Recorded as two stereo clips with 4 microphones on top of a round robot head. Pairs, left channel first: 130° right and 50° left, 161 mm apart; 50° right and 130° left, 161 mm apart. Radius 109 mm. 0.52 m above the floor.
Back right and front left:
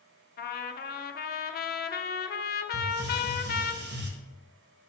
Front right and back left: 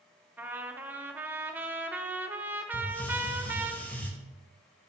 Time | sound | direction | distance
0.4 | a trumpet | 150° right | 0.6 m
2.7 | a hiss | 35° left | 1.2 m